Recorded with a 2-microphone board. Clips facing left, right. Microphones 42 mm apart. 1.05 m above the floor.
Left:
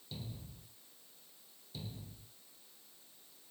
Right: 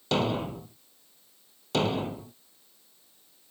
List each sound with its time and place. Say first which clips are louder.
0.1 s a thud: right 23 dB; 75° right (ahead or behind)